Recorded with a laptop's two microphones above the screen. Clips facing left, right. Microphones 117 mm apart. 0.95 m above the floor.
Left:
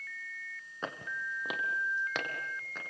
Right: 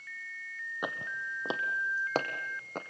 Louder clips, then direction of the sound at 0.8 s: Right 1 dB; 15° right (ahead or behind).